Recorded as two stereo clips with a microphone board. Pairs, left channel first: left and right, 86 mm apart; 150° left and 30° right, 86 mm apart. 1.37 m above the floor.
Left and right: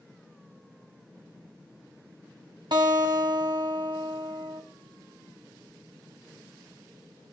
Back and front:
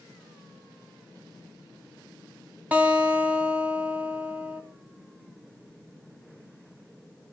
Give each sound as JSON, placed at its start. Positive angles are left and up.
{"t": 2.7, "sound": "a guitar", "azimuth_deg": -100, "distance_m": 2.5}